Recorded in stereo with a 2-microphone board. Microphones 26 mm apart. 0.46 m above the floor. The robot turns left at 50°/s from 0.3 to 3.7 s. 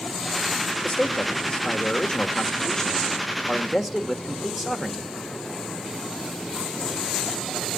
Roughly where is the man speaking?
Behind left.